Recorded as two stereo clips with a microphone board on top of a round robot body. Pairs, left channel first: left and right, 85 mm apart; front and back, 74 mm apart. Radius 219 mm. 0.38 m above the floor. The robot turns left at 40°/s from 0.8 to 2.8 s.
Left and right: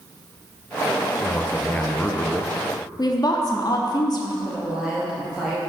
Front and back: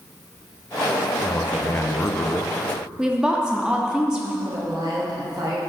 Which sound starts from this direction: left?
A woman speaking, at 3.0 s.